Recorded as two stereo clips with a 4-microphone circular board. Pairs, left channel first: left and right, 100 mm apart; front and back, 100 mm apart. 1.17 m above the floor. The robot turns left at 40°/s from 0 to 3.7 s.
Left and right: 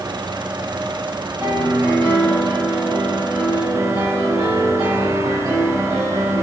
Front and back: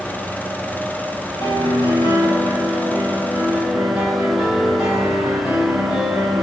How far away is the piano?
About 4 m.